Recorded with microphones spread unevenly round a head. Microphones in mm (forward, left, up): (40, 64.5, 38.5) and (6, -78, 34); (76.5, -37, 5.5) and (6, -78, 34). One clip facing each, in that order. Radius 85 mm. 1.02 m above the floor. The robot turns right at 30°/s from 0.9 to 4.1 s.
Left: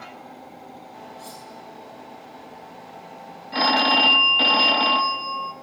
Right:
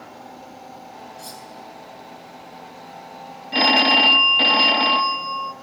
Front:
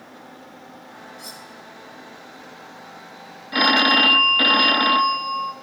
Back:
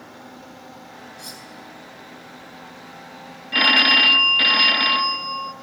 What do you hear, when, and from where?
1.2 s cutlery clinking: 60° right, 9 m; by 1.4 s 55° right, 9 m
3.5 s a phone ringing: 35° right, 1.3 m; by 5.5 s 20° right, 1.3 m